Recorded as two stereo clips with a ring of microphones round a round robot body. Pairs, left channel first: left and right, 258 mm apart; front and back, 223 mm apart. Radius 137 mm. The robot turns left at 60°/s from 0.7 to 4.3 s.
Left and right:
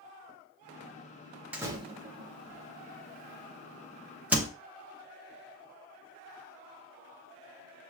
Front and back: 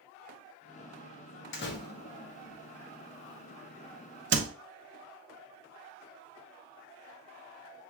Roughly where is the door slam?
Ahead.